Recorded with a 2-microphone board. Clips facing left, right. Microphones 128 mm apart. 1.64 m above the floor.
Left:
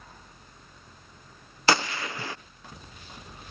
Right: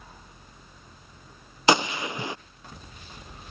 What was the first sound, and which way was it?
A gunshot, 20° right (ahead or behind).